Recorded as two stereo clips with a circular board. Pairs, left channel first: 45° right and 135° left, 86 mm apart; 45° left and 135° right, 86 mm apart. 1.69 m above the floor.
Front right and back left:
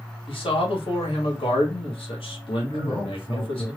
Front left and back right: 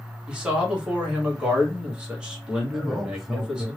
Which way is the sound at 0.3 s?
55° right.